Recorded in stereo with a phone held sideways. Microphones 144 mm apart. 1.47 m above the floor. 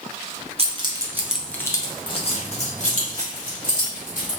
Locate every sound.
0.6 s keys jangling: 40° right (ahead or behind), 0.7 m; by 4.3 s 70° left (ahead or behind), 1.9 m